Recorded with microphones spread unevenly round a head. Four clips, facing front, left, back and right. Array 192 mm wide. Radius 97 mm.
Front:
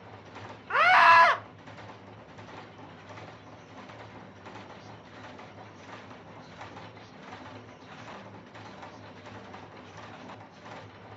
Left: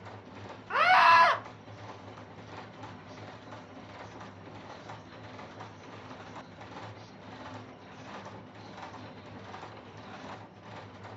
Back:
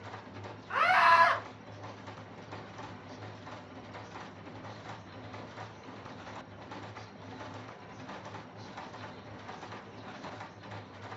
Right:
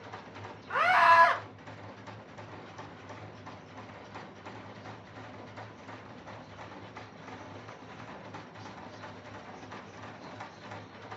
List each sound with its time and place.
0.7 s a scream: 5° left, 0.5 m